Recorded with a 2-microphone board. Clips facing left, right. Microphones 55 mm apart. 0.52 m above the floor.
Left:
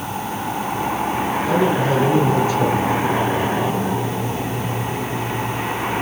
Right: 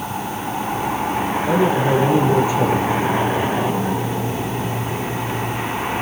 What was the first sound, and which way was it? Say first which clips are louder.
A man speaking: right 1 dB; 15° right (ahead or behind).